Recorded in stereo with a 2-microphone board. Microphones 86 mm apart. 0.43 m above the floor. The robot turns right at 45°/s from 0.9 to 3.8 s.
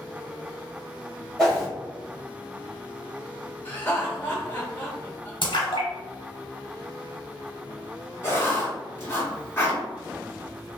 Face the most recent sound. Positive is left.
turn(degrees=25)  # may be behind; listen again after turning